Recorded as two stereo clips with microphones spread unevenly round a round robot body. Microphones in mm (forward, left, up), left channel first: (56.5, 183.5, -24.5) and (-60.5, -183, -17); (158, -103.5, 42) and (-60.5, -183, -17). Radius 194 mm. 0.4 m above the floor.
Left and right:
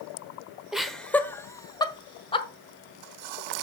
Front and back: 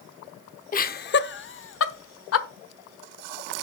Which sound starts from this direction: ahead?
Laughter, at 0.7 s.